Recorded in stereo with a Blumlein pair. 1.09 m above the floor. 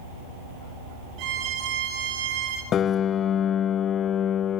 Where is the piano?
25° left, 0.7 m.